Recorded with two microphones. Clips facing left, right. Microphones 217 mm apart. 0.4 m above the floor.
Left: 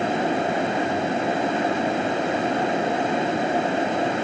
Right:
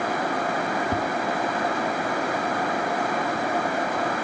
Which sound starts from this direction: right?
Tapping, at 0.9 s.